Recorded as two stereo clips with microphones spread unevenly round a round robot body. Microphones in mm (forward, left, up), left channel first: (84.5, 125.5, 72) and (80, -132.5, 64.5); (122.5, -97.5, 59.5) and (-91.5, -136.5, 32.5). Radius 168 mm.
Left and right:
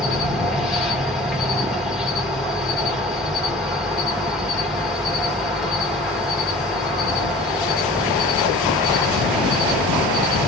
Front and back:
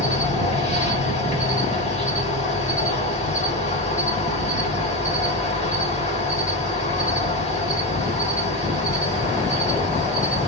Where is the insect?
5° right, 1.6 m.